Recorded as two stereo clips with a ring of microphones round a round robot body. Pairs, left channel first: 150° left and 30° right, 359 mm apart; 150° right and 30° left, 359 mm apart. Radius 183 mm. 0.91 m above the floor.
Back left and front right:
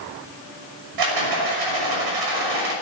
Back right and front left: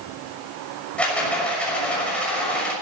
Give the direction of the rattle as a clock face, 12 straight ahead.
2 o'clock.